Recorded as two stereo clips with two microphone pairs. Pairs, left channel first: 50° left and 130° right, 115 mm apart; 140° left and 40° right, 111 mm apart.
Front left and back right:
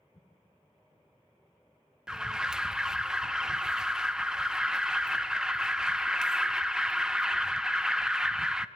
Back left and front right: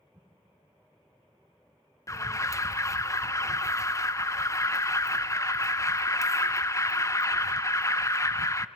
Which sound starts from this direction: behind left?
An alarm, at 2.1 s.